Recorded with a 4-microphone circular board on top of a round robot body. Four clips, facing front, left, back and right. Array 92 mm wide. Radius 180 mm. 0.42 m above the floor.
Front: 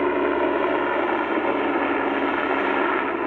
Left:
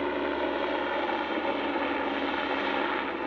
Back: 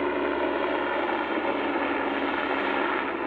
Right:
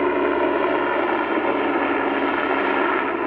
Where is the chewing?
No chewing in this recording.